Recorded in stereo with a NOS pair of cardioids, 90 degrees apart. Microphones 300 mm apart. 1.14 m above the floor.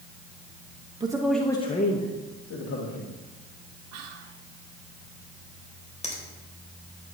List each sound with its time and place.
1.0 s a man speaking: 15° right, 1.3 m; by 3.1 s 65° left, 2.5 m
3.9 s whispering: 55° right, 1.1 m
6.0 s a finger snap: 20° left, 3.5 m